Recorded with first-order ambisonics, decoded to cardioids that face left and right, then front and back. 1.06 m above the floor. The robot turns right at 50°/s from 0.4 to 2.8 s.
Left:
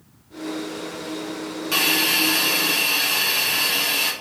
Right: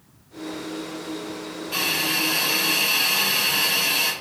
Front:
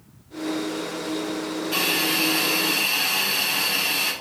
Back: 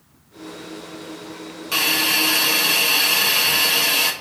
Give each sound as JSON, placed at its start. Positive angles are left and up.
{"t": 1.7, "sound": "a hiss", "azimuth_deg": 125, "distance_m": 1.4}